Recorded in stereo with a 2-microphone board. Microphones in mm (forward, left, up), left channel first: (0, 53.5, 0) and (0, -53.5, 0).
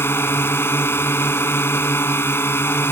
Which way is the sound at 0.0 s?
20° left (ahead or behind).